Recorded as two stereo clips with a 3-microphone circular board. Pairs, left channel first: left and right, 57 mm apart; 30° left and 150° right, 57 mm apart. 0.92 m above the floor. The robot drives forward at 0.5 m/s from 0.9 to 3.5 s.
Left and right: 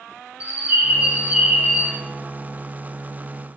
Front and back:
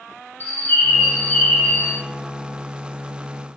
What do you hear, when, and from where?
0.4 s a bird: 25° right, 1.3 m; by 2.0 s 40° right, 0.9 m